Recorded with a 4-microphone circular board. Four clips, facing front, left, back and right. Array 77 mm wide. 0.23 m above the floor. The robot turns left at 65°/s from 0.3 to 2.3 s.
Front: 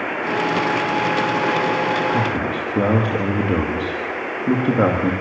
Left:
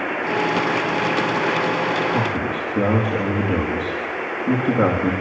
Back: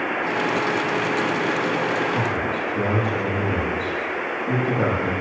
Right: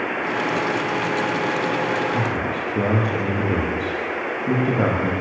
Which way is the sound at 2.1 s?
15° left.